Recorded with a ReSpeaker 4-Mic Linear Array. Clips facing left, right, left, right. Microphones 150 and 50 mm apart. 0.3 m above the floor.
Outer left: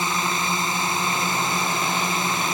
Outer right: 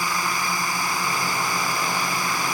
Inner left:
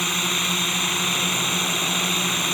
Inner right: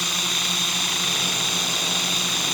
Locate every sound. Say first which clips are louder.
0.0 s a drone: outer left 1 dB, inner left 2 dB; 20° left (ahead or behind)